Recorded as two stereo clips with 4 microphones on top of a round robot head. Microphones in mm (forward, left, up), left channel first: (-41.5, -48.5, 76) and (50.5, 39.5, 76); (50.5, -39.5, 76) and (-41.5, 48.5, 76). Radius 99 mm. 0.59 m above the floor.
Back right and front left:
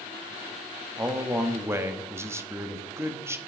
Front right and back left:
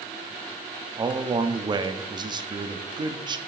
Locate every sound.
1.0 s a man speaking: 105° left, 0.7 m